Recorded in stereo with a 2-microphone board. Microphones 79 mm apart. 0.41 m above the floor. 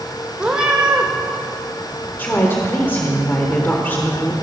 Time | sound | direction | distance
0.4 | a cat meowing | 10° right (ahead or behind) | 1.8 m
2.2 | a woman speaking | 25° left (ahead or behind) | 1.3 m